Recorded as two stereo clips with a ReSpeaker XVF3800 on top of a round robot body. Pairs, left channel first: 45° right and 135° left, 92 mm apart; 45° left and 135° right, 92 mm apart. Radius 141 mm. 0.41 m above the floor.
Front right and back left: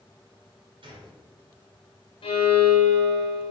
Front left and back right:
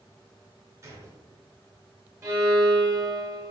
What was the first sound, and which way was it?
A gunshot, 165° left.